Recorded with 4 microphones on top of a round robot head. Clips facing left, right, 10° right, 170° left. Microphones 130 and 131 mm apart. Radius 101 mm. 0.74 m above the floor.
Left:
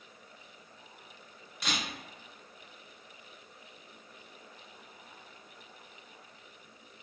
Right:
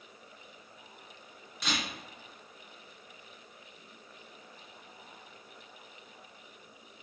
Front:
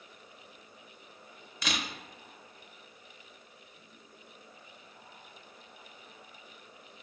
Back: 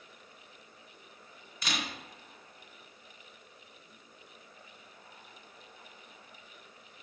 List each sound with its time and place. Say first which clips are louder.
1.6 s a camera shutter: right 1 dB, front 1 dB; straight ahead, 0.5 m